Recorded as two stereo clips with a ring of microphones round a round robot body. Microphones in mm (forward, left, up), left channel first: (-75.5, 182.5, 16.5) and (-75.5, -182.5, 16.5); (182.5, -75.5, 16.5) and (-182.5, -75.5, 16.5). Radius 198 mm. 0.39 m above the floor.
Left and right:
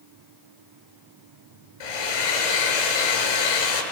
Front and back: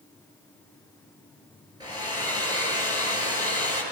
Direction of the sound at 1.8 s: 100° left.